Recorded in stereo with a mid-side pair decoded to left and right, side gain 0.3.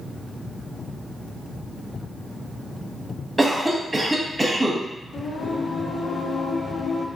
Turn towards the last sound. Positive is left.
turn(degrees=65)